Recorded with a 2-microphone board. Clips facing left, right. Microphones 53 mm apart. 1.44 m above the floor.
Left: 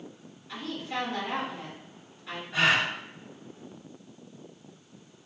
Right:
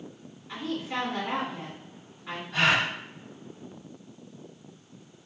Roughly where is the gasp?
Centre.